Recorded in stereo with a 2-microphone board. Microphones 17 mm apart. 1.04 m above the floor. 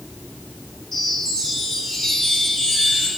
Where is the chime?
10° left (ahead or behind), 3 m.